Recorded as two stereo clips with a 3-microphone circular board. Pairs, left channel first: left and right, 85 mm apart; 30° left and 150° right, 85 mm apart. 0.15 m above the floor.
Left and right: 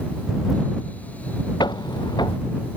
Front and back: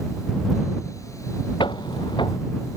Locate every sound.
1.6 s footsteps: 55° left